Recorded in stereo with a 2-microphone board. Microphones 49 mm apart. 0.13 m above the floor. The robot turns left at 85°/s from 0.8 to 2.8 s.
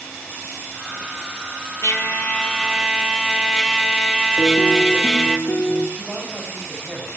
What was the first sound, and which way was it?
A trumpet, 75° left.